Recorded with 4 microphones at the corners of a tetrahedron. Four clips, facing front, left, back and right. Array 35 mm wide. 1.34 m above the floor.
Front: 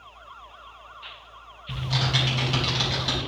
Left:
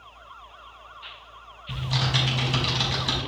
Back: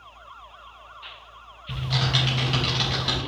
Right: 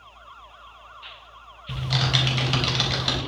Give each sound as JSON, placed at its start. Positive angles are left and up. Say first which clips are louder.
{"t": 1.7, "sound": "typing on a keyboard", "louder": "right 2 dB, back 1 dB", "azimuth_deg": -105, "distance_m": 3.5}